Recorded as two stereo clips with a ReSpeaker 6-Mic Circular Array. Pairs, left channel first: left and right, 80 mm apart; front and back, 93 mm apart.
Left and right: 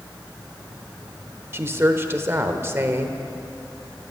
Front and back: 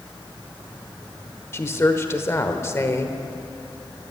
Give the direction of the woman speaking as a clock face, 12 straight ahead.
2 o'clock.